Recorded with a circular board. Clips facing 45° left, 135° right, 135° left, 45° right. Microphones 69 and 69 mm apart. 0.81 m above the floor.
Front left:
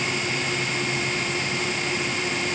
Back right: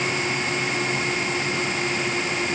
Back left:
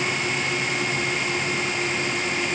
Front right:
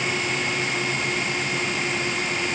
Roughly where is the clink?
No clink in this recording.